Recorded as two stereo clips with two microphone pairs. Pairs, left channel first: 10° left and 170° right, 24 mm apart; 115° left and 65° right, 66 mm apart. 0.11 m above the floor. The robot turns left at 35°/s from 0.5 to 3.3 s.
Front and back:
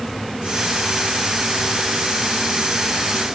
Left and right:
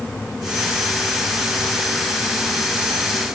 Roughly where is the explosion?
No explosion in this recording.